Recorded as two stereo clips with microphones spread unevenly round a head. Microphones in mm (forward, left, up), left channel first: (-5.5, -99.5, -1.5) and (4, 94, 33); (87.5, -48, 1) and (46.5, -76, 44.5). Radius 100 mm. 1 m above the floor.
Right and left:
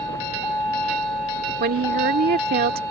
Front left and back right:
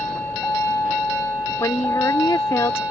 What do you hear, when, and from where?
0.0 s a vehicle: 10° right
1.6 s a woman speaking: 45° left